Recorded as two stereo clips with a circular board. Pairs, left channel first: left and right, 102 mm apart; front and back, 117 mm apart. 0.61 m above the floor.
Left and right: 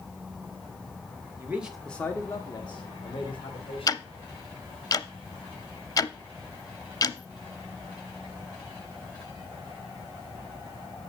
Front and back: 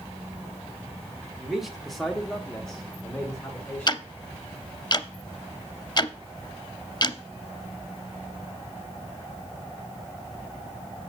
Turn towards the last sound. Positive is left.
turn(degrees=45)